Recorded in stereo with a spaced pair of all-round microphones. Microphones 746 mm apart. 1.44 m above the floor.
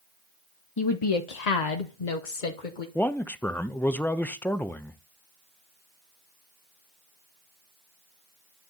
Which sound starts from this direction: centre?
A man speaking, at 3.0 s.